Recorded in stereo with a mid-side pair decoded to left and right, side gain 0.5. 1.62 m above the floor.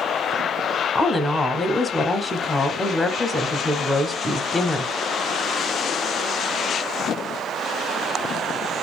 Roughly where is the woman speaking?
Ahead left.